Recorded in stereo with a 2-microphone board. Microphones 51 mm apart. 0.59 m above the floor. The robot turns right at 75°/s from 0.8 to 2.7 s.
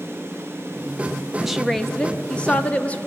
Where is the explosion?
No explosion in this recording.